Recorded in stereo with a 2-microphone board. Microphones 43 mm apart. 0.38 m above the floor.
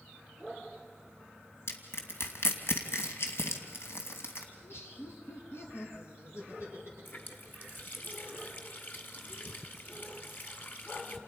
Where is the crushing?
70° left (ahead or behind), 2.5 m.